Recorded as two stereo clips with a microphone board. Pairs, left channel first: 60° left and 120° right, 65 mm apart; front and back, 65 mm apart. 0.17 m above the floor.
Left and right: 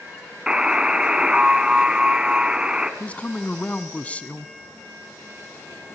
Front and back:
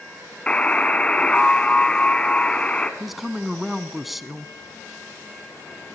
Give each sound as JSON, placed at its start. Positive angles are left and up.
{"t": 0.5, "sound": "a buzzer", "azimuth_deg": -55, "distance_m": 1.7}
{"t": 3.0, "sound": "a woman speaking", "azimuth_deg": 95, "distance_m": 1.3}